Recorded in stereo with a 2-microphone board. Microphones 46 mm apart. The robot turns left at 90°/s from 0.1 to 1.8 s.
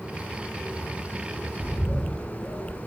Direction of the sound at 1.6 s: 40° left (ahead or behind).